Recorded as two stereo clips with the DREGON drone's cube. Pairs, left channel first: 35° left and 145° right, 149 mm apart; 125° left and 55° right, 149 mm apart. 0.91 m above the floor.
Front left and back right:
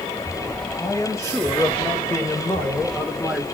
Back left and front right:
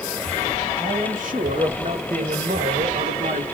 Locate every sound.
0.8 s a man speaking: 35° right, 5 m; by 3.5 s 55° right, 2.5 m